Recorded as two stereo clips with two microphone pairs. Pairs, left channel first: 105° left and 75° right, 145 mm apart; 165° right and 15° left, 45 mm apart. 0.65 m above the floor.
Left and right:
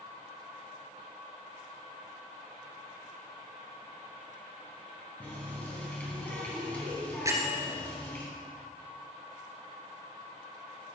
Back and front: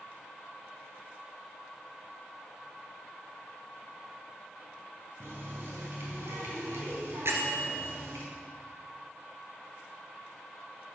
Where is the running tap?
25° left, 3.5 m.